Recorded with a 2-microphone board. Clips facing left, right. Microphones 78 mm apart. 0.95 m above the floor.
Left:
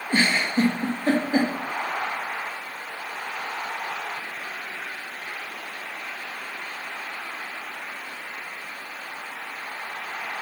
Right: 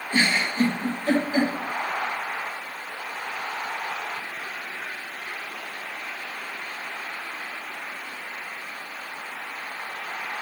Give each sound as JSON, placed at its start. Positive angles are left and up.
{"t": 0.1, "sound": "a giggle", "side_deg": 40, "distance_m": 0.6}